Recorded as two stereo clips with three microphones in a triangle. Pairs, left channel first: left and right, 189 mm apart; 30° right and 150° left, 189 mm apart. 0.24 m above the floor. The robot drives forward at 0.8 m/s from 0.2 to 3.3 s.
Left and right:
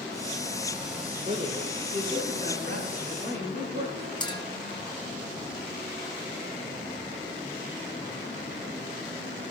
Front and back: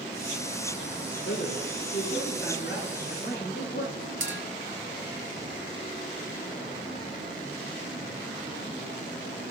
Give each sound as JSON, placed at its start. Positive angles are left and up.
{"t": 1.2, "sound": "a man speaking", "azimuth_deg": -45, "distance_m": 5.0}
{"t": 4.2, "sound": "a clink", "azimuth_deg": 155, "distance_m": 1.6}